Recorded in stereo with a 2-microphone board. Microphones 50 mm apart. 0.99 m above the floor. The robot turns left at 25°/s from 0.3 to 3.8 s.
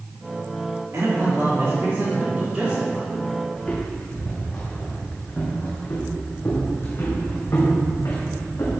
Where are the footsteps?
10° left (ahead or behind), 4 m; by 8.8 s 65° left (ahead or behind), 4 m.